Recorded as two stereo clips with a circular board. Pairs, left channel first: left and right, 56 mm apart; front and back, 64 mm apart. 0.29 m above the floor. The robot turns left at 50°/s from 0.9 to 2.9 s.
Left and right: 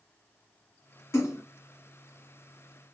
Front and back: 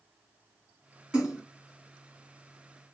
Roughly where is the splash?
Left.